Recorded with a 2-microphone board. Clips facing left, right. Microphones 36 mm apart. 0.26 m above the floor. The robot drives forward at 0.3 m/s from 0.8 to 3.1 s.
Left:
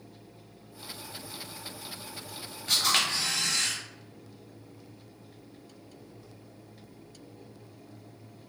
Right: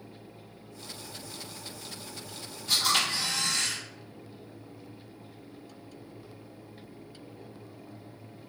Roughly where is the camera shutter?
Left.